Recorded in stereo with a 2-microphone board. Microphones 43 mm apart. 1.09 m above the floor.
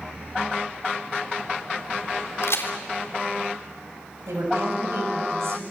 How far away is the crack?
About 3 m.